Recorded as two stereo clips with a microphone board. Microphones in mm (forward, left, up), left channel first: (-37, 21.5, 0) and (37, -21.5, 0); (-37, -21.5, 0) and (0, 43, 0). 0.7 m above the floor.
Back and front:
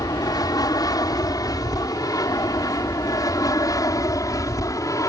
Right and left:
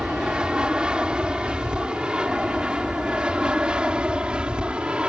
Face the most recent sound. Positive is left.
turn(degrees=130)